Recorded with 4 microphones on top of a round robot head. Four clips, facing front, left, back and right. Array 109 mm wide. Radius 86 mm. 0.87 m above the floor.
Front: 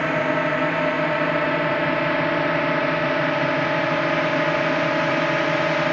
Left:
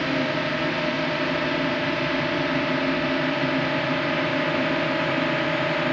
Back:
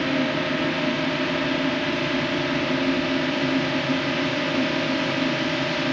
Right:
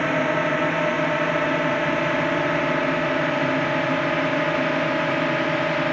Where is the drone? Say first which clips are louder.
Right 3 dB, front 2 dB; 40° right; by 5.9 s 15° right.